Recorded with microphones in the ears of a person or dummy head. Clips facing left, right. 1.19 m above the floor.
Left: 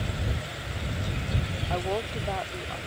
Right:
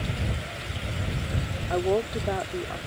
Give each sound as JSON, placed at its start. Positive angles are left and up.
{"t": 1.7, "sound": "a woman speaking", "side_deg": -35}